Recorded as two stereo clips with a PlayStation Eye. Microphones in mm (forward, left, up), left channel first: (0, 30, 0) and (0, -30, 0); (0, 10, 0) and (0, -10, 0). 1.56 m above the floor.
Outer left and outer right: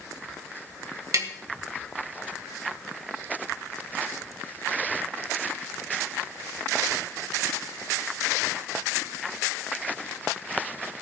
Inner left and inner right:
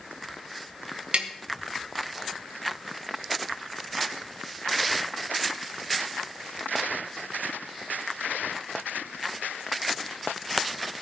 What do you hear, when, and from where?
1.1 s tapping: 65° right (ahead or behind), 1.7 m